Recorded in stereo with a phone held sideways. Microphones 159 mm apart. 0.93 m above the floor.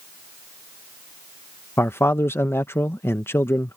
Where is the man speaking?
15° left (ahead or behind).